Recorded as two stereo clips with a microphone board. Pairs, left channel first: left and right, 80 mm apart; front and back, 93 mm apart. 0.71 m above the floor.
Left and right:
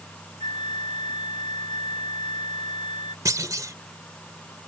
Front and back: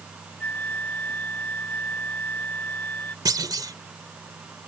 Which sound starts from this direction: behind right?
A clunk, at 3.2 s.